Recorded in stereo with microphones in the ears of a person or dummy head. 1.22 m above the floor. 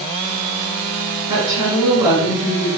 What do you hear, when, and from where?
1.3 s a woman speaking: 25° right (ahead or behind), 1.6 m